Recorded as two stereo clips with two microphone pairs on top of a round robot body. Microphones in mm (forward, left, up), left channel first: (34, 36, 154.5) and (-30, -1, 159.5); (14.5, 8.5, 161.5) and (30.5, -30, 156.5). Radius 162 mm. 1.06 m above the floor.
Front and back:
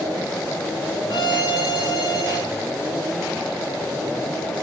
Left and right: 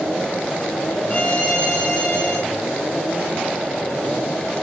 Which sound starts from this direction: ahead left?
A violin, at 1.1 s.